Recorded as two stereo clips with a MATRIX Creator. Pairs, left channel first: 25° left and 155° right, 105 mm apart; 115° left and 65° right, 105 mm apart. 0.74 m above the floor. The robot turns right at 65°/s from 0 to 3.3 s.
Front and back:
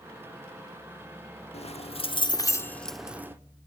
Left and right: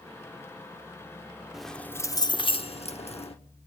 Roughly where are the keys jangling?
Ahead.